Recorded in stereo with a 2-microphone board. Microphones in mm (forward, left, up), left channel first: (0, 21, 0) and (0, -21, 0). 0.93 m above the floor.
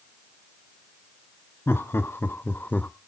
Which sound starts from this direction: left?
Laughter, at 1.7 s.